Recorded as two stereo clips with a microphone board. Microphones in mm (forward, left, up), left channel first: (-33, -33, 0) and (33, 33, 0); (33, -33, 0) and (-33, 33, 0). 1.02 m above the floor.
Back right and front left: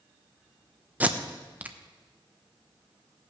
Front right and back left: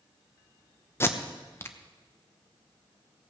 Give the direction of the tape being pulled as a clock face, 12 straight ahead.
12 o'clock.